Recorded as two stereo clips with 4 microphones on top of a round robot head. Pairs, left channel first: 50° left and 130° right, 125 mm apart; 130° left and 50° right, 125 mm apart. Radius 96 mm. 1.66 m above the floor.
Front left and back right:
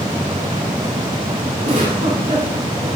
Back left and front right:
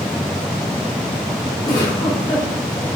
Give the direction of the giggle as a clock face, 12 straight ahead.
6 o'clock.